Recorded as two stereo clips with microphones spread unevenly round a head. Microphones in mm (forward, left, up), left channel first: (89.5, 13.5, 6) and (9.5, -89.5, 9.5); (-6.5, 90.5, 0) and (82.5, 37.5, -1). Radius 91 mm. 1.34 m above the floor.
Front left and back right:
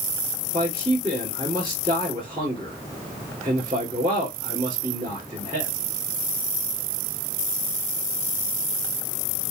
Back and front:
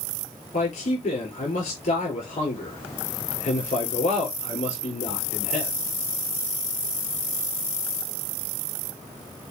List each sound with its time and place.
0.5 s a man speaking: 170° left, 3.5 m